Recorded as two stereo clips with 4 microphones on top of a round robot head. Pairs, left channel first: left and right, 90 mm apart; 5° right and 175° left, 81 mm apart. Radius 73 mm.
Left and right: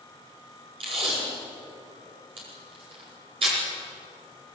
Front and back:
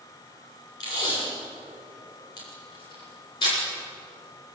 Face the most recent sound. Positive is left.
turn(degrees=-50)